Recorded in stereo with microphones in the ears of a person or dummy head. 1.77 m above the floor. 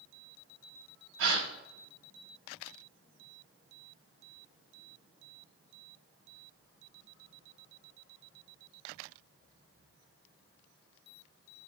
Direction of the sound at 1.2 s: 65° right (ahead or behind).